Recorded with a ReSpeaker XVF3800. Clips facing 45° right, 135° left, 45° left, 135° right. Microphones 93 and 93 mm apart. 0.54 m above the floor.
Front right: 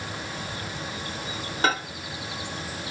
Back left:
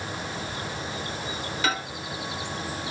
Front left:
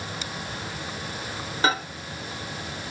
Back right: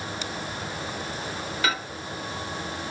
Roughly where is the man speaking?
No man speaking in this recording.